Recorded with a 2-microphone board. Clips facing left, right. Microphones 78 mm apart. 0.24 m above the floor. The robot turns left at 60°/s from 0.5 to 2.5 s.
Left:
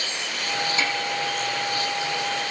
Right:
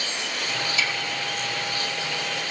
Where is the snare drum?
40° left (ahead or behind), 9.5 m; by 0.9 s 30° left (ahead or behind), 9.5 m.